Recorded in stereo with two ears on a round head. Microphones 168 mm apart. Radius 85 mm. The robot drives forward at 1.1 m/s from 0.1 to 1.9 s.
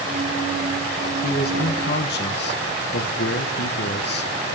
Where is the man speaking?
55° left (ahead or behind), 1.4 m; by 4.6 s 65° left (ahead or behind), 1.2 m.